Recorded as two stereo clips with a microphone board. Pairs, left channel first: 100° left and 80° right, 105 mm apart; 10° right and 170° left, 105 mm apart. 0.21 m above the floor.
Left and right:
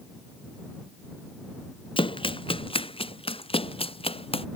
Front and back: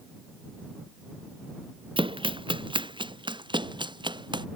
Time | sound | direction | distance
2.0 | running footsteps | 135° left | ?